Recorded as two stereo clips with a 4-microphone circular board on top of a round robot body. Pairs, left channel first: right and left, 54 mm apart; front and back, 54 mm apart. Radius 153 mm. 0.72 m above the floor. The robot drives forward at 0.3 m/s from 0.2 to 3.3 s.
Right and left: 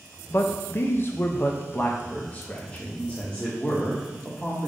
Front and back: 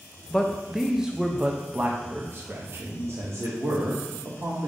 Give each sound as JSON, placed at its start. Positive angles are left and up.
{"t": 0.3, "sound": "a man speaking", "azimuth_deg": -75, "distance_m": 0.7}